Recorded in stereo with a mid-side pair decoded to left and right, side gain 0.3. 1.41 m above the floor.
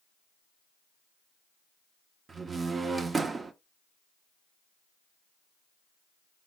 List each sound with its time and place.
2.3 s a door slam: 55° right, 0.7 m